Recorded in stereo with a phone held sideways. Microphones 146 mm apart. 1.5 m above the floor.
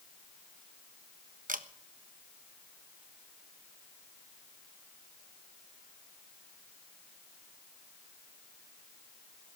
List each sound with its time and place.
1.5 s a camera shutter: 65° right (ahead or behind), 1.1 m